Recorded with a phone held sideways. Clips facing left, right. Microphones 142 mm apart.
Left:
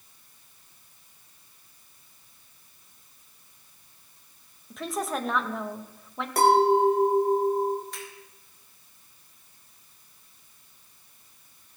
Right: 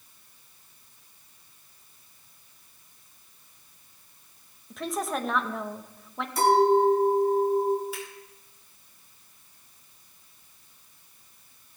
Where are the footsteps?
I don't hear footsteps.